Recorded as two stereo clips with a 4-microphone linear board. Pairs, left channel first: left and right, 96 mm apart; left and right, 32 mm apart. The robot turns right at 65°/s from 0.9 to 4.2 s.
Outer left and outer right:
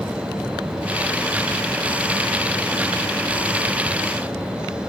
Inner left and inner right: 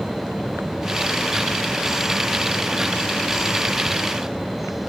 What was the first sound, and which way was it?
Only background noise.